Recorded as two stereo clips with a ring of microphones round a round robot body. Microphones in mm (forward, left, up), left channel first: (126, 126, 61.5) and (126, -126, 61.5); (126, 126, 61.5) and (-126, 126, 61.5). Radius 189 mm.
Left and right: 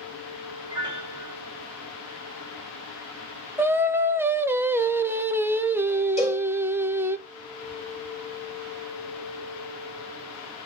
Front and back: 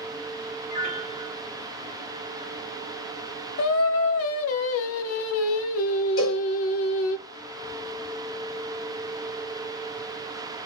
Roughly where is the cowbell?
Ahead left.